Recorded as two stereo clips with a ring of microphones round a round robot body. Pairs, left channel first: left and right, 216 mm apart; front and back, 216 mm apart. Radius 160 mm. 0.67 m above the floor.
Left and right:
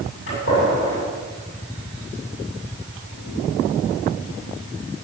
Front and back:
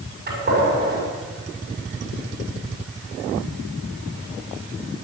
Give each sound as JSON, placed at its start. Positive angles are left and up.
{"t": 0.3, "sound": "a gunshot", "azimuth_deg": 140, "distance_m": 6.5}